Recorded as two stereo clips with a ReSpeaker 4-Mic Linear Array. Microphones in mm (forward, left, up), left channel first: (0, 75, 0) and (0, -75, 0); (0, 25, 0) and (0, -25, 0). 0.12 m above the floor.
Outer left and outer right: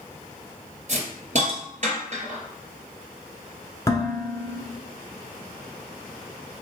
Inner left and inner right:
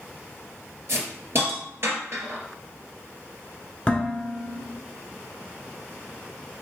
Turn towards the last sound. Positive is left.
turn(degrees=20)  # may be behind; listen again after turning